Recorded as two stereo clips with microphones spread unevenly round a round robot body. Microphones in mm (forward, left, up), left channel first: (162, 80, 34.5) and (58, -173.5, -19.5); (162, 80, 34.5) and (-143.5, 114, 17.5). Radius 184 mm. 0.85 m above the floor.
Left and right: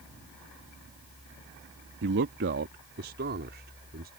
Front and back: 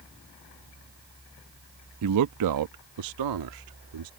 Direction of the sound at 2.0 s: 155° right.